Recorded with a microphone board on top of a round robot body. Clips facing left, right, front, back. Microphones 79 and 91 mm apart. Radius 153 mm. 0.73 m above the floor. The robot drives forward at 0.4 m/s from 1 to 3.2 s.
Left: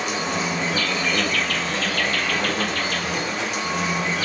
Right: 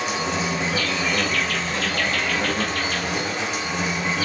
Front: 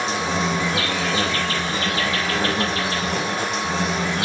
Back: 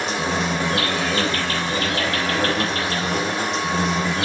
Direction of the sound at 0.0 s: 175° right.